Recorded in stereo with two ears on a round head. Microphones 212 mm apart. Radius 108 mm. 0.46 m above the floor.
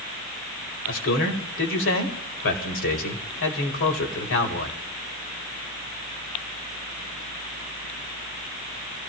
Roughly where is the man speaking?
Left.